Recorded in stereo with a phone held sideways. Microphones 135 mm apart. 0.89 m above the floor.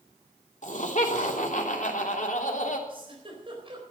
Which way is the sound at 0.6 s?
65° left (ahead or behind).